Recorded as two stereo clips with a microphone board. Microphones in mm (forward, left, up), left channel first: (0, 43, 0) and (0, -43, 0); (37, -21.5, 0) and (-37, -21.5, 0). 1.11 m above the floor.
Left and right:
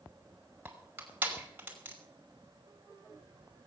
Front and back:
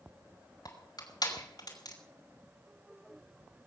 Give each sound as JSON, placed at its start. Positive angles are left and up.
{"t": 0.7, "sound": "crushing", "azimuth_deg": -20, "distance_m": 5.5}